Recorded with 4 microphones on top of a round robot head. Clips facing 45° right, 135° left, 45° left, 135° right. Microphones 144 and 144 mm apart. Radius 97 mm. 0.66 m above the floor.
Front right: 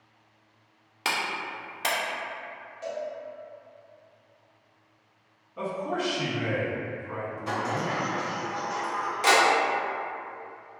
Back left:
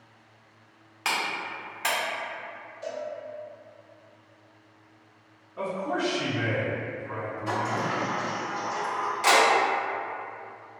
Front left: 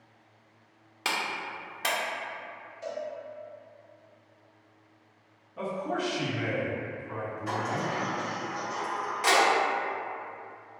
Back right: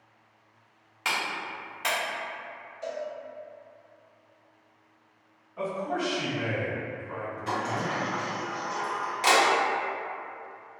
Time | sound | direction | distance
1.1 | a clap | straight ahead | 0.6 m
2.8 | a cowbell | 45° right | 1.7 m
5.6 | a man speaking | 20° left | 1.4 m
7.5 | a sliding door | 100° right | 1.0 m